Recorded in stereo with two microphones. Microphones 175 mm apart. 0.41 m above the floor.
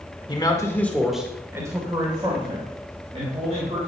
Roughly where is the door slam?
No door slam in this recording.